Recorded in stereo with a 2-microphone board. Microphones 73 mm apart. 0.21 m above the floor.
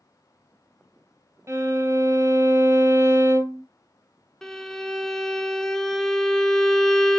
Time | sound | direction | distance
1.5 | a violin | 35° right (ahead or behind) | 0.9 m
4.4 | a violin | 5° left (ahead or behind) | 0.7 m